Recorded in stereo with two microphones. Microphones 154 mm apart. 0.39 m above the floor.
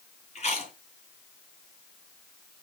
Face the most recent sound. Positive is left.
turn(degrees=45)  # may be behind; listen again after turning